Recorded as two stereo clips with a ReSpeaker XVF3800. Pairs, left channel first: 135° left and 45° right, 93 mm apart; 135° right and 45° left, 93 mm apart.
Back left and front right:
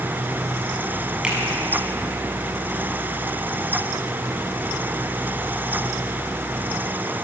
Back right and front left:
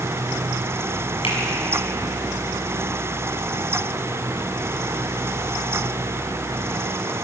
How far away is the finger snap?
About 5.5 m.